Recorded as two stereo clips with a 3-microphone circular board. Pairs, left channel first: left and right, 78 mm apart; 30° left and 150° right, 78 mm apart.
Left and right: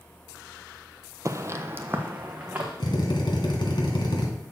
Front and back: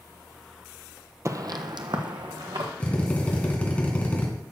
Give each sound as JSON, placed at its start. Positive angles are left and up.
{"t": 1.2, "sound": "footsteps", "azimuth_deg": -115, "distance_m": 0.5}
{"t": 2.8, "sound": "a drill", "azimuth_deg": 100, "distance_m": 1.9}